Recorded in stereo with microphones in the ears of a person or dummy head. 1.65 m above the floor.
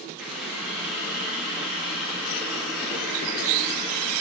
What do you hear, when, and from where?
0.2 s a running tap: centre (ahead or behind), 1.8 m